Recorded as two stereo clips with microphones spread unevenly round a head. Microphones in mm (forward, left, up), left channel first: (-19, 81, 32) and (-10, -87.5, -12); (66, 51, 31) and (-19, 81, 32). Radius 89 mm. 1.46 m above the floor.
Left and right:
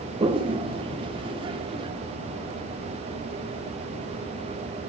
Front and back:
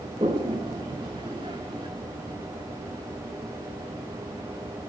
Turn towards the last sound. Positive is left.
turn(degrees=-155)